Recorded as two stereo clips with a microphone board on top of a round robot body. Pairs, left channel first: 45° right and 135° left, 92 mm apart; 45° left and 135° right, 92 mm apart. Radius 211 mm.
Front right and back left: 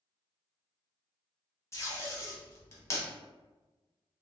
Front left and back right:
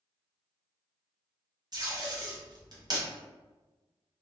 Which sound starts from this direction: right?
Tape being pulled, at 1.7 s.